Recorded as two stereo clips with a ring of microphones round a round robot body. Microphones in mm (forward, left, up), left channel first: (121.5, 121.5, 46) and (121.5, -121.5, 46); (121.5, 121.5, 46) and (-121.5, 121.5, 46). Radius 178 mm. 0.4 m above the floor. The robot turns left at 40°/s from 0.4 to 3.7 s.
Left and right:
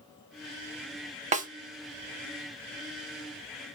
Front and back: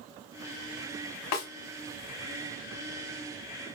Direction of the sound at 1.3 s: 25° right.